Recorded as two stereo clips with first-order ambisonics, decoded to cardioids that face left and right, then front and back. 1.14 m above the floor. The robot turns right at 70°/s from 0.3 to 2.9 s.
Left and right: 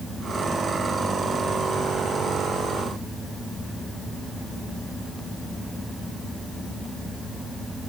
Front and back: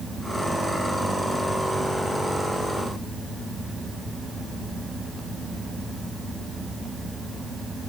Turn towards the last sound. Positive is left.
No sound to turn to.